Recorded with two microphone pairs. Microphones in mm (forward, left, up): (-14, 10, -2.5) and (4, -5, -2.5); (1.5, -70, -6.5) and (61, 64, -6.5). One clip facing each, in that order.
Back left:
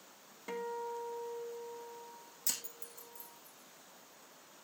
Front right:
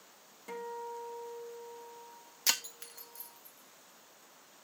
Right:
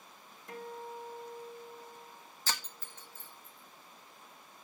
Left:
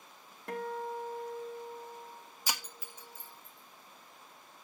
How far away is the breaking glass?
About 0.9 m.